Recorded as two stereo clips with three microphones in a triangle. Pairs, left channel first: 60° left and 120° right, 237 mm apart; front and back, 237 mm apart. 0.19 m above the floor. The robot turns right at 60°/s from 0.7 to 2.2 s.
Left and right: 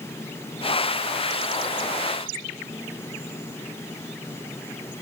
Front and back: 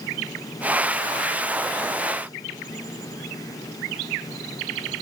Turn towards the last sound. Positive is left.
No sound to turn to.